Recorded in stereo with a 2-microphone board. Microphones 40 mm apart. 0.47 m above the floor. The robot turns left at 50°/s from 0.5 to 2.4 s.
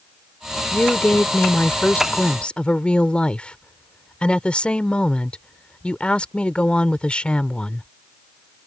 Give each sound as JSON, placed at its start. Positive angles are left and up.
{"t": 0.7, "sound": "a woman speaking", "azimuth_deg": 125}